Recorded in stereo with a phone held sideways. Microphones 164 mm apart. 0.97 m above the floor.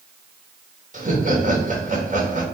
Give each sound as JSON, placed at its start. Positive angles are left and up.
{"t": 0.9, "sound": "laughter", "side_deg": -50, "distance_m": 1.5}